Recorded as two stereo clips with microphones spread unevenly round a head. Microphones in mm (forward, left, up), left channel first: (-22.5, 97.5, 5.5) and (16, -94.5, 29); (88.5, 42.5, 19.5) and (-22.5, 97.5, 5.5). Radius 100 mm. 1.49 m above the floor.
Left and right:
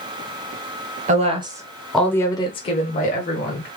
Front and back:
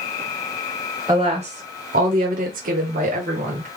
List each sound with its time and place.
1.1 s a woman speaking: 135° right, 1.1 m; by 3.7 s 145° left, 1.8 m